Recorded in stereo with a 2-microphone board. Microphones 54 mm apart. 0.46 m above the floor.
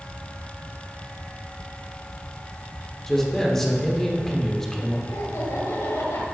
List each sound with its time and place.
3.1 s a man speaking: 5° left (ahead or behind), 1.2 m
5.1 s laughter: 65° left (ahead or behind), 1.8 m